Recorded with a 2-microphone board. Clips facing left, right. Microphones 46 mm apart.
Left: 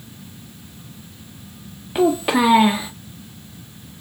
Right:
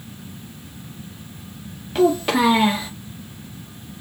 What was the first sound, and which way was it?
A child speaking, 10° left (ahead or behind).